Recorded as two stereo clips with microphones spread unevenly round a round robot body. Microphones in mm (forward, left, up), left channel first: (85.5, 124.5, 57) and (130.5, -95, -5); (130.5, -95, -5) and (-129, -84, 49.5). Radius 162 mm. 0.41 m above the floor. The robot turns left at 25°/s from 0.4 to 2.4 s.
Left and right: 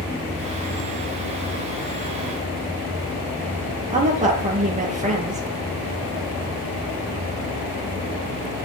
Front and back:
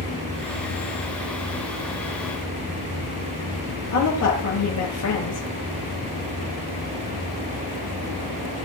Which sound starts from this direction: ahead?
A woman speaking, at 3.9 s.